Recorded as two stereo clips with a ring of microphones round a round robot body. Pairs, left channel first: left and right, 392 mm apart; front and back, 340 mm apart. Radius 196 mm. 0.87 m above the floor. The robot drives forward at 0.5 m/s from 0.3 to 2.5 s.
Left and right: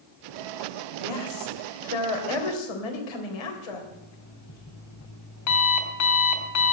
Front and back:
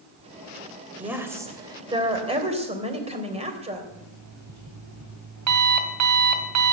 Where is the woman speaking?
95° left, 3 m; by 3.8 s 110° left, 3.5 m.